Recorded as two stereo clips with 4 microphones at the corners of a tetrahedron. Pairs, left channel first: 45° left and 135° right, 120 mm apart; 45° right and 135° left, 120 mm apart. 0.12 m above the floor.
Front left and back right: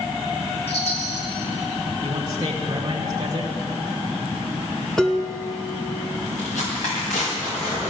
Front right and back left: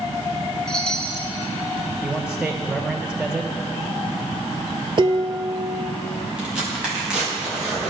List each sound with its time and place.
0.7 s a chime: 35° left, 1.5 m
2.0 s a man speaking: 155° right, 1.3 m
5.0 s dishes clattering: 130° left, 1.0 m
6.4 s tearing paper: 50° left, 5 m